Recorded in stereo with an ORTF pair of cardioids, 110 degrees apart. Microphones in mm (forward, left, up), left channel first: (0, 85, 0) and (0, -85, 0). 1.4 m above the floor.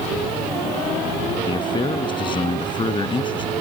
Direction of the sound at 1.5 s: 25° left.